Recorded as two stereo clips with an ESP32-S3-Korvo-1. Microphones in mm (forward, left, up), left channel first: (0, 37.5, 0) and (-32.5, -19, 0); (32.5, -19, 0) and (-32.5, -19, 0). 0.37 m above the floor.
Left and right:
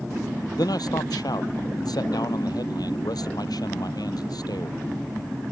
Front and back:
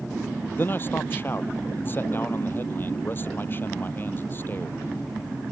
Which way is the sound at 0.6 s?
55° left.